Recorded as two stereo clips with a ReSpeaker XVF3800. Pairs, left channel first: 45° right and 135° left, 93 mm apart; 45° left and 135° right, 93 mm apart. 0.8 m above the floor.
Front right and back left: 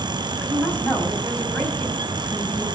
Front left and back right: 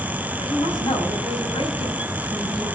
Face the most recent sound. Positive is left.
turn(degrees=25)